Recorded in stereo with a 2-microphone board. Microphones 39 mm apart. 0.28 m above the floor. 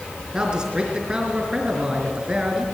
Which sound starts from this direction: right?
A man speaking, at 0.3 s.